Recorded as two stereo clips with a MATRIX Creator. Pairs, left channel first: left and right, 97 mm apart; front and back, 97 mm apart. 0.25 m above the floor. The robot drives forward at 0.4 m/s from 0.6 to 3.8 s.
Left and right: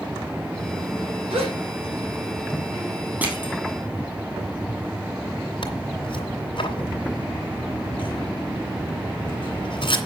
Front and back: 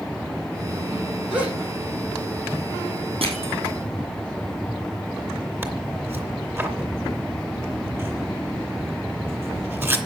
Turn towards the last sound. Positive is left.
turn(degrees=115)